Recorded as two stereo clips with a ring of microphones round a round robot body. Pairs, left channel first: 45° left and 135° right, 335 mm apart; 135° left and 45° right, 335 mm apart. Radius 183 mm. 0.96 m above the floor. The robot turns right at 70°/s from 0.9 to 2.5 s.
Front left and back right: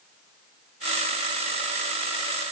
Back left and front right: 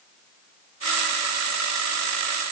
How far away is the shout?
I don't hear a shout.